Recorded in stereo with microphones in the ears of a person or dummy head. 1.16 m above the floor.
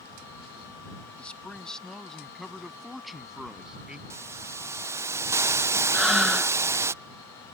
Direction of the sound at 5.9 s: 5° right (ahead or behind).